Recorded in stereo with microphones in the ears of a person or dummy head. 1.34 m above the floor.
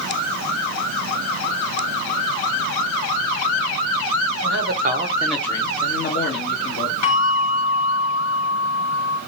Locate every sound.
4.4 s a man speaking: 60° right (ahead or behind), 0.8 m; by 6.9 s 65° left (ahead or behind), 1.3 m
7.0 s a bell: 40° left (ahead or behind), 2 m